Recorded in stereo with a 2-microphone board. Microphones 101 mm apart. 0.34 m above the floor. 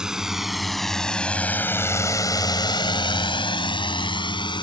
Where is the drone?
5° right (ahead or behind); by 4.6 s 50° left (ahead or behind).